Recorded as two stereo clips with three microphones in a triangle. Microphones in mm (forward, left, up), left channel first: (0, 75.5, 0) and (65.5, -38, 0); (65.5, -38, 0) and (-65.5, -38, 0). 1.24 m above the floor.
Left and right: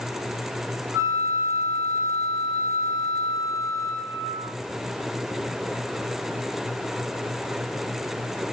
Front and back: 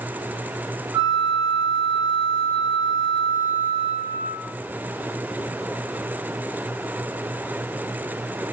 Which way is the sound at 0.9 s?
120° right.